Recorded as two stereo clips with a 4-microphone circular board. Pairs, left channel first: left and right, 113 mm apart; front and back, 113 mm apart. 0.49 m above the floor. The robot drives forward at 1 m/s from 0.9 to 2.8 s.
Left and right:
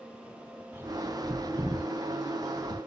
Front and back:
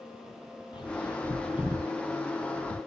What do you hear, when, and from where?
0.7 s a bird: 30° right, 0.8 m; by 2.8 s 165° right, 1.4 m